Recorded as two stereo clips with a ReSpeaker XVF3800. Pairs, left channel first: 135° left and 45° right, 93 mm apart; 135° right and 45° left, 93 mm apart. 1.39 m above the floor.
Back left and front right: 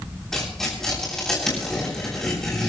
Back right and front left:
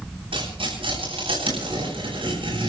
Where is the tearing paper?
50° left, 8.5 m.